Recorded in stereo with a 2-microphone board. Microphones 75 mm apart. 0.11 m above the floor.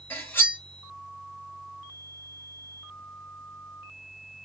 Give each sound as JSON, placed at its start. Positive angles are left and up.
{"t": 0.1, "sound": "cutlery clinking", "side_deg": 30, "distance_m": 1.1}